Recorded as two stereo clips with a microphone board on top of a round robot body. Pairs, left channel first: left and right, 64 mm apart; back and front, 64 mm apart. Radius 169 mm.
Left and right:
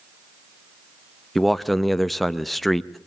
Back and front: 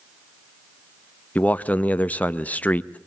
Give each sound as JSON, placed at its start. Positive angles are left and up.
{"t": 1.4, "sound": "a man speaking", "azimuth_deg": 175, "distance_m": 1.1}